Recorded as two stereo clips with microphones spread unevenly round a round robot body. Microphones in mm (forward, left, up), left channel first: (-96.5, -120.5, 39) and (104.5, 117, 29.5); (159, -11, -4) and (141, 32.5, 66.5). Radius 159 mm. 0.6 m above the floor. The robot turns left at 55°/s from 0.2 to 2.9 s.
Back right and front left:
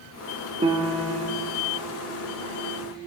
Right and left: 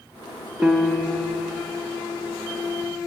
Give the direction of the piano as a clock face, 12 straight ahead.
1 o'clock.